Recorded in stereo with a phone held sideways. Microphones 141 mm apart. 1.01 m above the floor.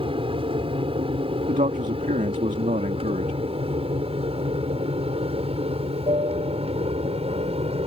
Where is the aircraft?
40° right (ahead or behind); by 7.9 s 45° right (ahead or behind).